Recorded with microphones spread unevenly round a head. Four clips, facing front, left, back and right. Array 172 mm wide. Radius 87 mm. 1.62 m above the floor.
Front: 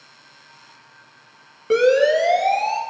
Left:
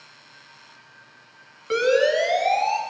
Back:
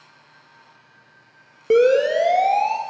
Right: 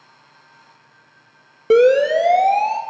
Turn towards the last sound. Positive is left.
turn(degrees=-115)